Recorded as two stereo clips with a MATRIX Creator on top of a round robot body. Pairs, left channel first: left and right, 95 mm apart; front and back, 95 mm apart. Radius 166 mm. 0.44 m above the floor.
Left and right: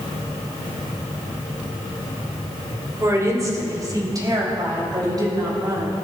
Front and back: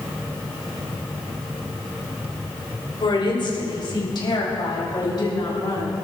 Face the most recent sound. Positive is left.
turn(degrees=-45)